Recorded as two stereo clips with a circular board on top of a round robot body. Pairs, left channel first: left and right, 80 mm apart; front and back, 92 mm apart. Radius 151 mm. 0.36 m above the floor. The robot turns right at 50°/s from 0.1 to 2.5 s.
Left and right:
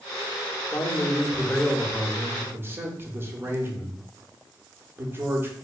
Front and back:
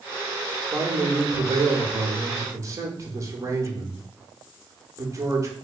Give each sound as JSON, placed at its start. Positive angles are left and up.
{"t": 0.7, "sound": "a man speaking", "azimuth_deg": 130, "distance_m": 1.2}